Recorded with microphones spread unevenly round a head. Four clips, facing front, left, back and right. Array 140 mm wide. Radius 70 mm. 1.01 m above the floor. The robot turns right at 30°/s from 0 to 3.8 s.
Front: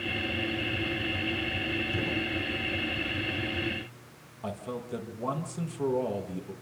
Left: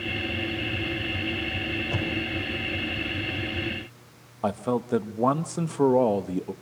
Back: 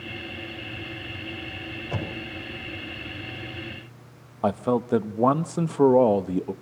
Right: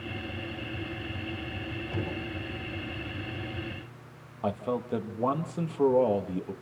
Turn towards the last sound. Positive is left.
turn(degrees=160)